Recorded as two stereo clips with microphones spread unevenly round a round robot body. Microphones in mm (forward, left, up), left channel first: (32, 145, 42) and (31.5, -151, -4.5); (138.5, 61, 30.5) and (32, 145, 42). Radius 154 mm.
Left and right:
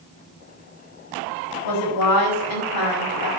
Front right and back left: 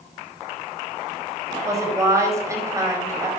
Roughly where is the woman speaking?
Left.